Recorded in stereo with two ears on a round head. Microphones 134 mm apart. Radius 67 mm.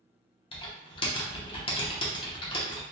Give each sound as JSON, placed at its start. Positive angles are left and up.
{"t": 0.5, "sound": "typing on a keyboard", "side_deg": 35, "distance_m": 0.7}